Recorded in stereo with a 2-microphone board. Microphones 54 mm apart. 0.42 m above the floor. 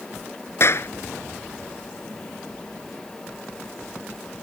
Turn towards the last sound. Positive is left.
turn(degrees=50)  # may be behind; listen again after turning